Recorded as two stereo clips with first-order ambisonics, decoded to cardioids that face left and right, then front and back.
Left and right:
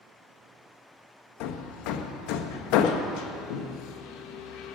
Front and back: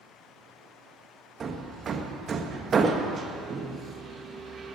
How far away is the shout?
No shout in this recording.